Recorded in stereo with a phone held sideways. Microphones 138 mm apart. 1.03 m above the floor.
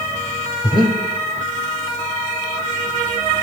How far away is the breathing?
About 1.7 m.